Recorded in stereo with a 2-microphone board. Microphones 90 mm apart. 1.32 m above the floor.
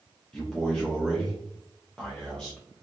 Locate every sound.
0.3 s a man speaking: 10° left (ahead or behind), 0.8 m